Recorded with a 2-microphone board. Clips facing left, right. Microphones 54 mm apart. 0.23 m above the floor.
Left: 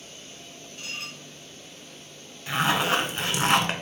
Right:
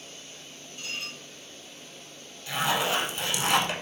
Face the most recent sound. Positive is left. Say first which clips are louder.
# left 3 dB
turn(degrees=45)  # may be behind; listen again after turning